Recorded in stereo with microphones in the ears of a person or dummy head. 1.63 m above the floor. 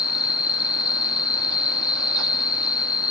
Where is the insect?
25° left (ahead or behind), 0.9 m.